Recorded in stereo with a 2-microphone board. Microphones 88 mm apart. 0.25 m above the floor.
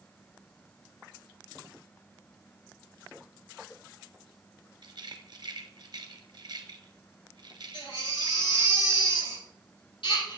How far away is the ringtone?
No ringtone in this recording.